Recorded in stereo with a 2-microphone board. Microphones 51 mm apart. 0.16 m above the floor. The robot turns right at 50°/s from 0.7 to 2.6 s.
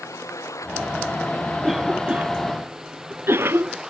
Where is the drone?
95° left; by 3.9 s 170° right.